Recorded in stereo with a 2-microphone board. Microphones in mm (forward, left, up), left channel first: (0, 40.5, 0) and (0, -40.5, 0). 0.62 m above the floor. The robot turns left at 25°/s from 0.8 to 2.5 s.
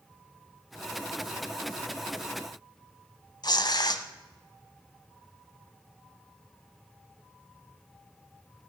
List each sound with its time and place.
3.4 s tearing paper: 55° left (ahead or behind), 1.0 m